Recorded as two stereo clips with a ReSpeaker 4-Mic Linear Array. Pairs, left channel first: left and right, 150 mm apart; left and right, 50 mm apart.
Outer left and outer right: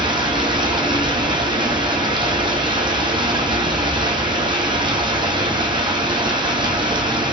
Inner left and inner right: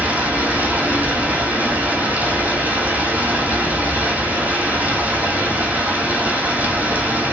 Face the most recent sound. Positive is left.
turn(degrees=-30)  # may be behind; listen again after turning